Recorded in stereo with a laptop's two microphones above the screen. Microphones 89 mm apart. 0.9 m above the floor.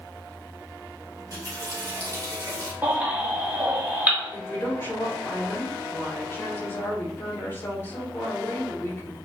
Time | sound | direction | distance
1.1 | a running tap | 40° right (ahead or behind) | 1.9 m
2.8 | a baby crying | 20° right (ahead or behind) | 1.5 m
4.3 | a woman speaking | 25° left (ahead or behind) | 3 m